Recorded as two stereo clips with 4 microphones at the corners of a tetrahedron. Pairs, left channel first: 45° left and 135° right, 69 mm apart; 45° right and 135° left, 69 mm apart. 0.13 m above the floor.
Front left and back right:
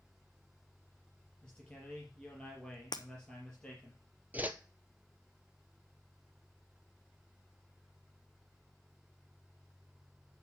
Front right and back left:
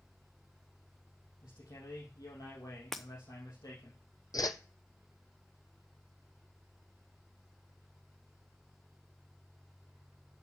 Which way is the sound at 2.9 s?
45° left.